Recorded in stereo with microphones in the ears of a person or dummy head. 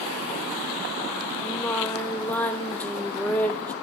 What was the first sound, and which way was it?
Singing, 15° left (ahead or behind).